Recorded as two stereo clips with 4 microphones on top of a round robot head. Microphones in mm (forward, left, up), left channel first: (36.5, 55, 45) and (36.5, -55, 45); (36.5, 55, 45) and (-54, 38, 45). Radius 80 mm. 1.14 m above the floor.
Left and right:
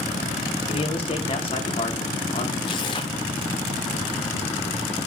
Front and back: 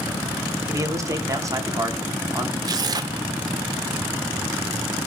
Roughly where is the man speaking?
Behind left.